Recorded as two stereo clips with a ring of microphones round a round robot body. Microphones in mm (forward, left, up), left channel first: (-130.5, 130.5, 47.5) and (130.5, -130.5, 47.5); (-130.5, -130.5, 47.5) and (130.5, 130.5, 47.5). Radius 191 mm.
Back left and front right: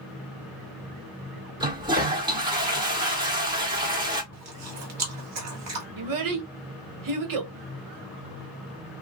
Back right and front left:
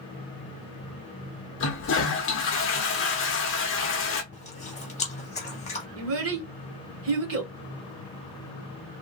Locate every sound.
1.6 s a toilet flushing: 115° right, 1.0 m
4.3 s chewing: 70° right, 1.5 m
6.0 s a child speaking: 10° right, 1.1 m